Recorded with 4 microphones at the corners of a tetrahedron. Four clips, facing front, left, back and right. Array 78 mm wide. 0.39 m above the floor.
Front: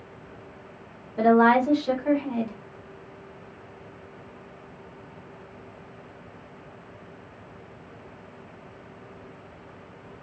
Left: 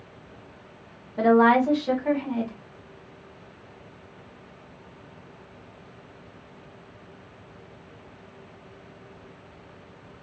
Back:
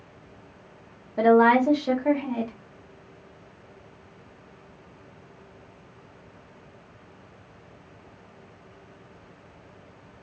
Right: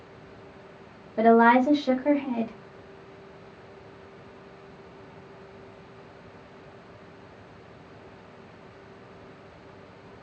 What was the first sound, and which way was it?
A woman speaking, 135° right.